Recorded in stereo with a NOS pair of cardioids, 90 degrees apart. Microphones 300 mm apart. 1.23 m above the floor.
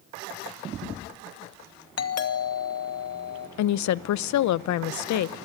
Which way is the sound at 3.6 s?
70° left.